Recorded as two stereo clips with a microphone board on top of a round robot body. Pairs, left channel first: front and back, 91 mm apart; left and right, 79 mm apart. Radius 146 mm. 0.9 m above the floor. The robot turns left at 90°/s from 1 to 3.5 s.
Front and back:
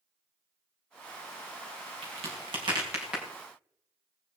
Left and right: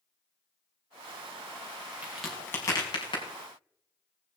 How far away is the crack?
About 4.5 m.